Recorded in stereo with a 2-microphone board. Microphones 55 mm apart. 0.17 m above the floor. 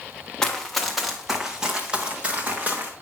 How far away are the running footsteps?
About 1.2 m.